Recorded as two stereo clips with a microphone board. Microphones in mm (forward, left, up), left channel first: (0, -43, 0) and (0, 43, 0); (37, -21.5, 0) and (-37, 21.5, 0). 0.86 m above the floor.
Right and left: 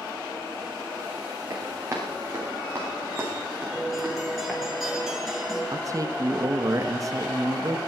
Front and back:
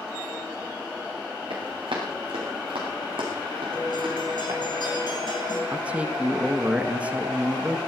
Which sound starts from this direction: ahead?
A guitar, at 3.7 s.